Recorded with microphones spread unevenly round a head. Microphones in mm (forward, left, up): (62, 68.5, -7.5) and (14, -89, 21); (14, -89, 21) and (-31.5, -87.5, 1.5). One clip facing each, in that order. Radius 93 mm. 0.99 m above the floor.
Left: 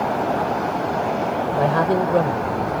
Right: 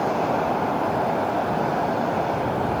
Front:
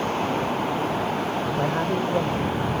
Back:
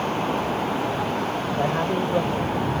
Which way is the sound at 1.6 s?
90° left.